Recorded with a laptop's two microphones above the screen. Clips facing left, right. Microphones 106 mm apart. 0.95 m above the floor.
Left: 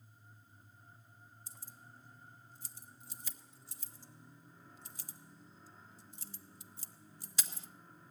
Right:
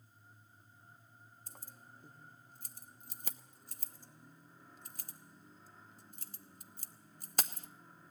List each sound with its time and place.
1.5 s keys jangling: 50° right (ahead or behind), 1.0 m